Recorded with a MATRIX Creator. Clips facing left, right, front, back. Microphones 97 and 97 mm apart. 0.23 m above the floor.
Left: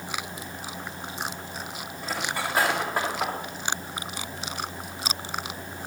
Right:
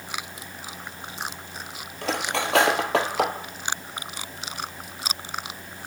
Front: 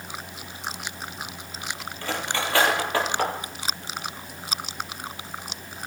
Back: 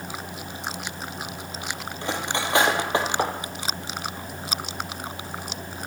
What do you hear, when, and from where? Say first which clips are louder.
2.0 s cutlery clinking: right 4 dB, back 1 dB; 110° right, 4 m